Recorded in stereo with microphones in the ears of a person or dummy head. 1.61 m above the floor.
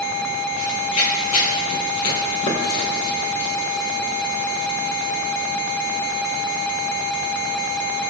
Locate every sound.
0.6 s running footsteps: 35° left (ahead or behind), 2.5 m; by 5.2 s 65° left (ahead or behind), 4.5 m